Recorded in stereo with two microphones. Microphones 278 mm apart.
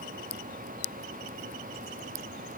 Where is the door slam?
I don't hear a door slam.